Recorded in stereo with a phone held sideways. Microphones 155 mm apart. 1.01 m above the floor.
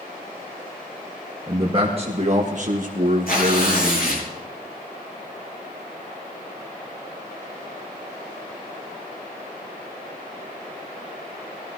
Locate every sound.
1.5 s a man speaking: 30° right (ahead or behind), 1.7 m; by 4.2 s 50° right (ahead or behind), 1.8 m
3.3 s tearing paper: 70° left (ahead or behind), 8 m